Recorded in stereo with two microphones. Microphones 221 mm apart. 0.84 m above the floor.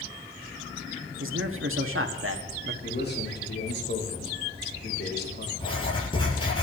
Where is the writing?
25° left (ahead or behind), 8.5 m.